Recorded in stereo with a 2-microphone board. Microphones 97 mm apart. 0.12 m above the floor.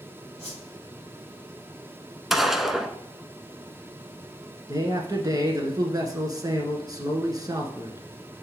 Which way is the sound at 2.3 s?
5° right (ahead or behind).